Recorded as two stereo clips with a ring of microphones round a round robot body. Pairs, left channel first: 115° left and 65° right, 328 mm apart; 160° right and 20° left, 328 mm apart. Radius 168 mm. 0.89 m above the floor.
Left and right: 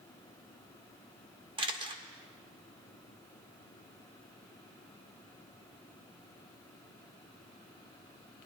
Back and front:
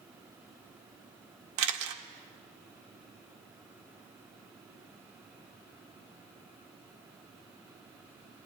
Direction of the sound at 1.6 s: 5° left.